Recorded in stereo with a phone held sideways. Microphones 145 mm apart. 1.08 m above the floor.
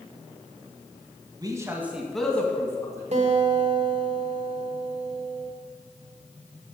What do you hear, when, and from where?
1.4 s a man speaking: 30° right (ahead or behind), 1.5 m; by 3.0 s 25° left (ahead or behind), 2 m
3.1 s a guitar: 55° right (ahead or behind), 1.2 m